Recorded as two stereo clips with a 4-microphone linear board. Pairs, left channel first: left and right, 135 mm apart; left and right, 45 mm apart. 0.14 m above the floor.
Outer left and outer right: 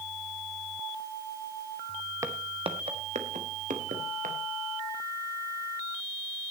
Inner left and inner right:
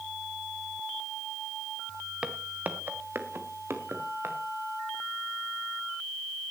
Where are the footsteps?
25° right (ahead or behind), 1.9 m; by 4.4 s 85° right, 4 m.